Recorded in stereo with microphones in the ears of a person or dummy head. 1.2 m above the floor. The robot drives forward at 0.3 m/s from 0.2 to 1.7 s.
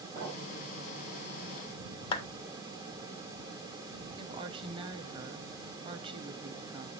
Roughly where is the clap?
Left.